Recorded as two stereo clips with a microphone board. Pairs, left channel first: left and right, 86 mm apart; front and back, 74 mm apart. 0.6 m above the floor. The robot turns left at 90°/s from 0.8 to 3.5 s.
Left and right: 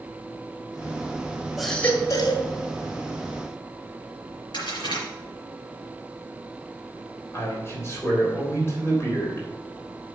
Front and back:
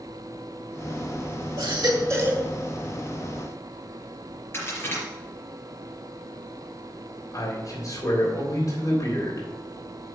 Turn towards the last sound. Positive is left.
turn(degrees=35)